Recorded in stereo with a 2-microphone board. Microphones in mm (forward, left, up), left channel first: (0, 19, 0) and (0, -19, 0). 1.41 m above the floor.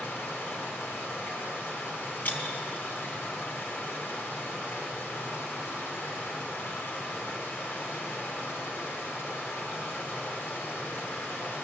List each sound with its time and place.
0.0 s running water: 80° left, 4.5 m
2.2 s breaking glass: 65° left (ahead or behind), 3.5 m